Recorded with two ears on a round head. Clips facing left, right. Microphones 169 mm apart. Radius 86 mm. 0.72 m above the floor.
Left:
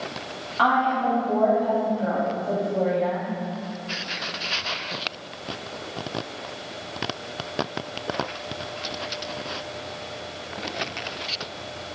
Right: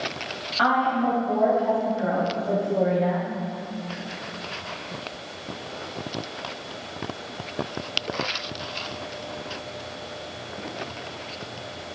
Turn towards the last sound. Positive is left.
turn(degrees=5)  # may be behind; listen again after turning